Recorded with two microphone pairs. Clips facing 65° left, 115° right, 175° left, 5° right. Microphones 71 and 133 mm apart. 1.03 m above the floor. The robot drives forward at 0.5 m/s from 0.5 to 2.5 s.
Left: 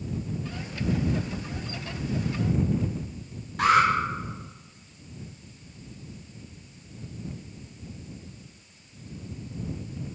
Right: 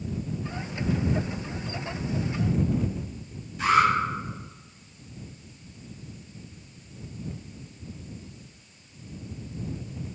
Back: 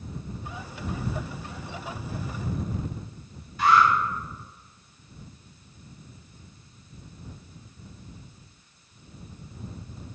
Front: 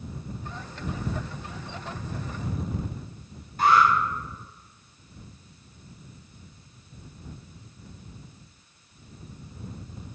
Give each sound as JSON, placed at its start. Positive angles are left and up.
{"t": 3.6, "sound": "an alarm", "azimuth_deg": 40, "distance_m": 5.0}